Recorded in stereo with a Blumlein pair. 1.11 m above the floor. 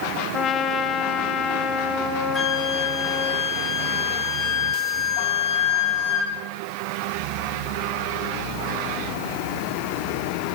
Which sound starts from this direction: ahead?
A flute, at 2.3 s.